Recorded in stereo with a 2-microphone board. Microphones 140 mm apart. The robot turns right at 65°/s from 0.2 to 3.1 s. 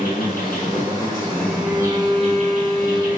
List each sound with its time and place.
0.0 s an insect: 95° left, 3 m; by 3.2 s 80° right, 3 m
1.5 s a violin: 165° right, 1.5 m; by 3.1 s 60° right, 1.5 m